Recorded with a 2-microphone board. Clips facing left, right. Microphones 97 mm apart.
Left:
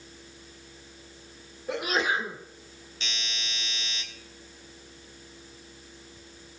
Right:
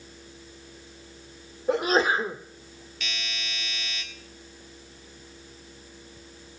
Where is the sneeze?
40° right (ahead or behind), 1.4 m.